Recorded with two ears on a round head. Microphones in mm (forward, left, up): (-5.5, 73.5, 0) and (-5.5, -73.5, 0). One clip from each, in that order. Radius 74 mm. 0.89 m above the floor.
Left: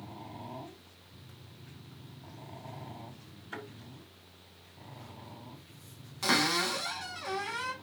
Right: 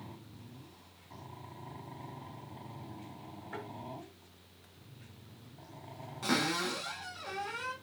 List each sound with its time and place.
3.5 s a thud: 60° left (ahead or behind), 6.5 m
6.2 s a cupboard door: 45° left (ahead or behind), 4.5 m